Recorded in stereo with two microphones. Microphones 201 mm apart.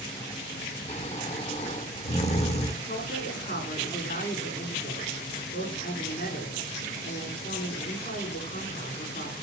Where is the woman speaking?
50° left (ahead or behind), 6.5 m.